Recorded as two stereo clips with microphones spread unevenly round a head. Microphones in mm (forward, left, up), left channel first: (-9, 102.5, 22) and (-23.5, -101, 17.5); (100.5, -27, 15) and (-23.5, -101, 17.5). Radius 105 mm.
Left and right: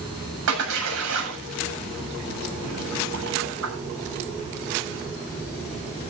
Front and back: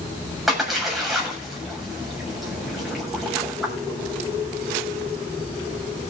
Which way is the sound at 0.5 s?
60° right.